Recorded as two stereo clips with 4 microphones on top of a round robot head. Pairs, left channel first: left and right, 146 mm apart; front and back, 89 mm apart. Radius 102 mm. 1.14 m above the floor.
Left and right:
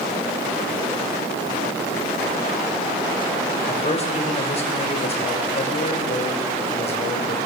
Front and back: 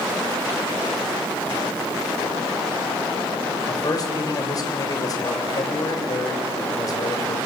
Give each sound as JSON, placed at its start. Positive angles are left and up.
{"t": 3.7, "sound": "a man speaking", "azimuth_deg": 45, "distance_m": 6.5}